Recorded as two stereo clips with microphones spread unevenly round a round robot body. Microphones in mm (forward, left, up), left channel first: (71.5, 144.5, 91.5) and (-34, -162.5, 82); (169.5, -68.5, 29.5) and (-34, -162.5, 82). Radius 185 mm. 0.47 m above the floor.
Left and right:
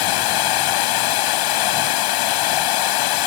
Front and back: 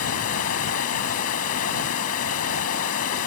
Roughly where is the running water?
Left.